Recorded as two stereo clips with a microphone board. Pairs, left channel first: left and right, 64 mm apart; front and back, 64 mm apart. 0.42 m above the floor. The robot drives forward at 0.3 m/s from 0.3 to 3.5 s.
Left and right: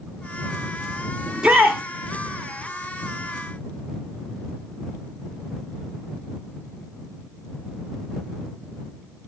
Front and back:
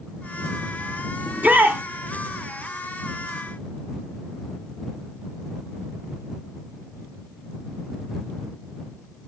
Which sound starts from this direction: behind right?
A shout, at 1.3 s.